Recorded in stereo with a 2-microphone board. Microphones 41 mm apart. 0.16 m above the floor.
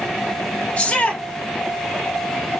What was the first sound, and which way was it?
A shout, 25° left (ahead or behind).